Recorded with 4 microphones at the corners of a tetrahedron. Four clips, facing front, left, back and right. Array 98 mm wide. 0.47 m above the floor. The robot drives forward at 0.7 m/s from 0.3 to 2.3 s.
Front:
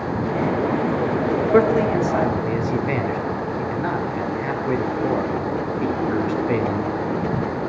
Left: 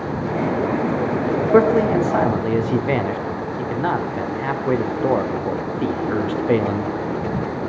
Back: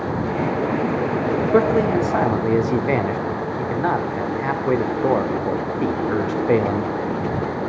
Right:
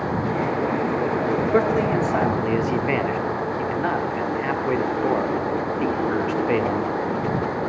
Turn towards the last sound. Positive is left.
turn(degrees=155)